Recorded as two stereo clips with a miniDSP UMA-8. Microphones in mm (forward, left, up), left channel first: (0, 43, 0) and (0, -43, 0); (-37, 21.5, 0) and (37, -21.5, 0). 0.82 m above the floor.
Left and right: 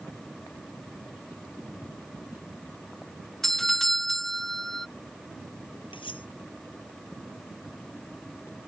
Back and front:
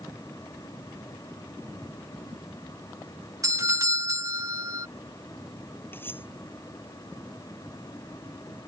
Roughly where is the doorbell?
Ahead.